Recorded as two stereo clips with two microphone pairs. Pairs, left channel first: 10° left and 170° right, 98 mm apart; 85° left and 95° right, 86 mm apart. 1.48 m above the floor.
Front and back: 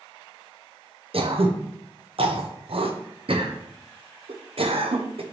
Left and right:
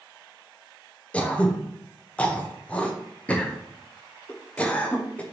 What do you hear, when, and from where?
1.1 s throat clearing: 165° left, 0.8 m